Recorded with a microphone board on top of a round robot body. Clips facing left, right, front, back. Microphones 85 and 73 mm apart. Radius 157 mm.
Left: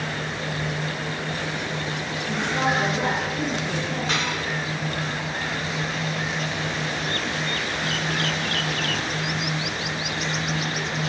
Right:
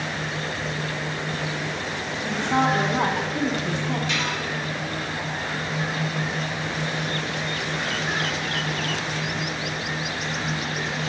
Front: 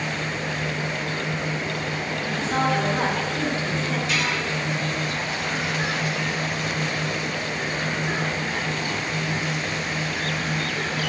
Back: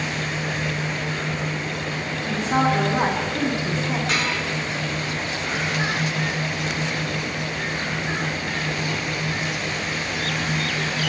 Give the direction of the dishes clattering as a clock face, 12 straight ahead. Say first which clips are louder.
Left 1 dB, even; 7 o'clock.